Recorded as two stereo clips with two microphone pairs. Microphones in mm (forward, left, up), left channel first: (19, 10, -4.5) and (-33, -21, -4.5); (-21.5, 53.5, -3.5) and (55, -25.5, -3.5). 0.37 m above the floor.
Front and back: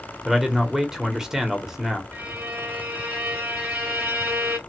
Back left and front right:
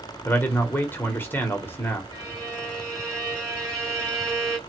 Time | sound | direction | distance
0.2 | a man speaking | 155° left | 0.8 m
2.1 | a violin | 100° right | 1.3 m